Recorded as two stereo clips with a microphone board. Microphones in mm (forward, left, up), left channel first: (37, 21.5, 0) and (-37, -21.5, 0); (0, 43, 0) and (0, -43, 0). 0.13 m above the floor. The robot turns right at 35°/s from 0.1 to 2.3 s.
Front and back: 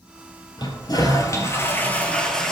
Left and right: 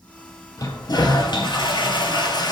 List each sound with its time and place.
0.6 s a toilet flushing: 50° left, 1.3 m; by 2.5 s 110° left, 1.3 m